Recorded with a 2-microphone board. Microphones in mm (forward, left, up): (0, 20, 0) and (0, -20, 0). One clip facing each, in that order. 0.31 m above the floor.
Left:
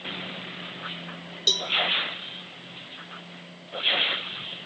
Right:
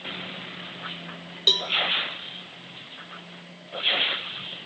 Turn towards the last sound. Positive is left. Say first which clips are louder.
# right 3 dB
turn(degrees=-30)  # may be behind; listen again after turning